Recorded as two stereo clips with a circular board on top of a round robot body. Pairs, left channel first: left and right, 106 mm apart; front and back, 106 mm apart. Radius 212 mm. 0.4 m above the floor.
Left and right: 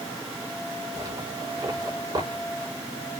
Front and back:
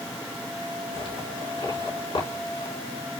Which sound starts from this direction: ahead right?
A zipper, at 0.9 s.